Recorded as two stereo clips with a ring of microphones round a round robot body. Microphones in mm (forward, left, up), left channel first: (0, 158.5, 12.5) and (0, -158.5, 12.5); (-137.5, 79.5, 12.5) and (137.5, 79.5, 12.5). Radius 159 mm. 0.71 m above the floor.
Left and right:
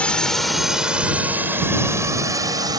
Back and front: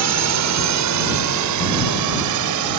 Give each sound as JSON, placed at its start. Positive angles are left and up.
{"t": 0.0, "sound": "a drone", "azimuth_deg": 5}